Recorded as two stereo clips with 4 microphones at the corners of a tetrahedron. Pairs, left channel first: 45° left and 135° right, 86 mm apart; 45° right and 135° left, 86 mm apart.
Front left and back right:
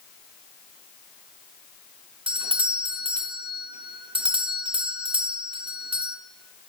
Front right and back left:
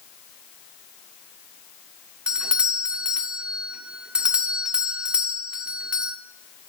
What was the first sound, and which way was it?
A doorbell, 145° right.